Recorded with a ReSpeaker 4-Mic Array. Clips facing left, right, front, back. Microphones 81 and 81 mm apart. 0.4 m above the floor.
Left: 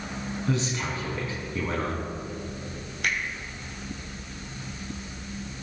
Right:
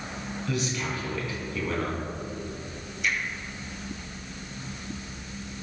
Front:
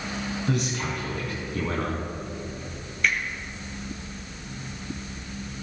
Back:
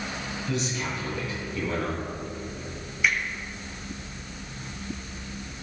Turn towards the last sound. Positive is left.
turn(degrees=100)